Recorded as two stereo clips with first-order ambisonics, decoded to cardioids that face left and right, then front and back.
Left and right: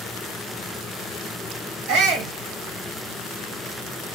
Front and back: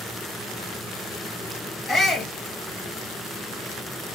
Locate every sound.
1.9 s a shout: 80° right, 1.4 m